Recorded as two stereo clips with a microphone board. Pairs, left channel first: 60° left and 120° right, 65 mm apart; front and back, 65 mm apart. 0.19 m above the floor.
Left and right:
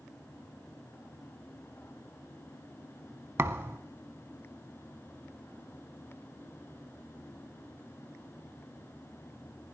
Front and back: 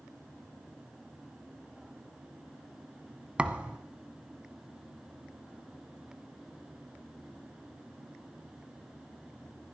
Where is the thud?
120° right, 0.7 m.